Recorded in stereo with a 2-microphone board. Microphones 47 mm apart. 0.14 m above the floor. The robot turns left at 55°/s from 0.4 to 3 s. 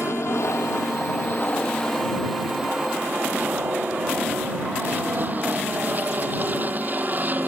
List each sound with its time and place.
0.0 s an aircraft: 100° left; by 7.5 s 40° right